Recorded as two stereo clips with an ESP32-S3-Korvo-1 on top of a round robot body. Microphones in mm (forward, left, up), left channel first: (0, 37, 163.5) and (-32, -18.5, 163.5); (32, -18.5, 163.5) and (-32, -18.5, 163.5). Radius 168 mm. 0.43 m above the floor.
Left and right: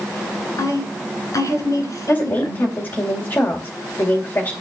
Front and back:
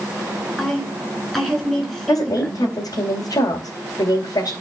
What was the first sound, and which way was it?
A woman speaking, 85° left.